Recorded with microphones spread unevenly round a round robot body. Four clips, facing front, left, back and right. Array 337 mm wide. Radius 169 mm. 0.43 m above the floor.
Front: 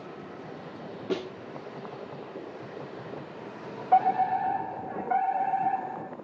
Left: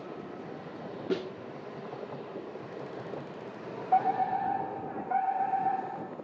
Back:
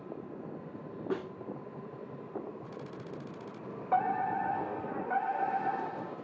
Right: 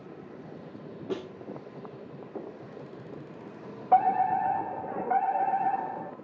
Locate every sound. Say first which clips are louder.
1.1 s a snare drum: left 3 dB, front 4 dB; 35° left, 0.9 m
3.9 s a fire alarm: right 4 dB, front 7 dB; 90° right, 3.5 m